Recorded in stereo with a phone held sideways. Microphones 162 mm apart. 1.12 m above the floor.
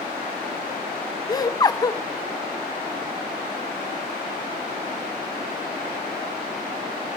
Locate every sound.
1.3 s laughter: 25° left (ahead or behind), 1.1 m